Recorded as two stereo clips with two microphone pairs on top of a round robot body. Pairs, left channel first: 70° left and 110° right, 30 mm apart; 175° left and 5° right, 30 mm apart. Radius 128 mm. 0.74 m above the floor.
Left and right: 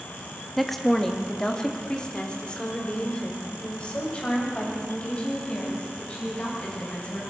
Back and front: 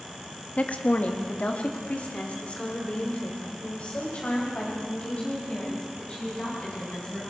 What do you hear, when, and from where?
0.6 s a woman speaking: 155° left, 1.7 m; by 7.3 s 120° left, 9 m